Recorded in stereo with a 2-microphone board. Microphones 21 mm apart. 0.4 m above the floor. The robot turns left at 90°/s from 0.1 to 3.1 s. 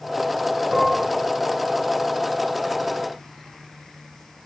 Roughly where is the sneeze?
No sneeze in this recording.